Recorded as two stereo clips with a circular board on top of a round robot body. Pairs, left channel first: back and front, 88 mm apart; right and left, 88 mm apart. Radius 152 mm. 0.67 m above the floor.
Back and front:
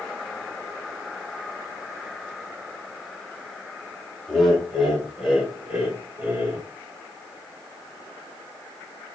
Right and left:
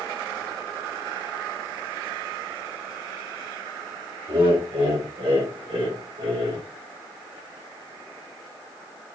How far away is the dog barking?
I don't hear a dog barking.